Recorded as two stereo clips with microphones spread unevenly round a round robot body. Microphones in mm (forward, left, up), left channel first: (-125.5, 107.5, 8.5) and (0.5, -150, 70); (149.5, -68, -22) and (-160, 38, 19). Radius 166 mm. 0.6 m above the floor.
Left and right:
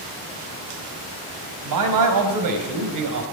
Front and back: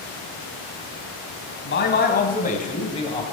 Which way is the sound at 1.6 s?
80° right.